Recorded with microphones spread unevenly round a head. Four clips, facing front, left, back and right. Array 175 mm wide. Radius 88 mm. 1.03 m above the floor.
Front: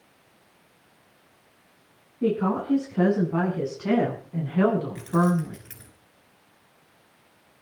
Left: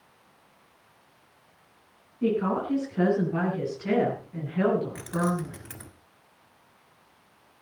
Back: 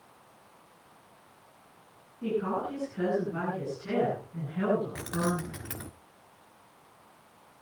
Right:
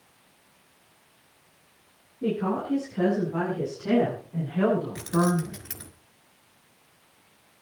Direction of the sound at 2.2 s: 10° left.